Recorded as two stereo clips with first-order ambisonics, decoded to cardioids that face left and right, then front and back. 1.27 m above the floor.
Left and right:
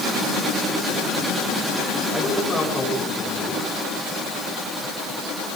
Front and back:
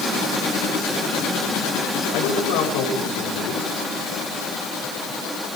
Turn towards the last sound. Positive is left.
turn(degrees=15)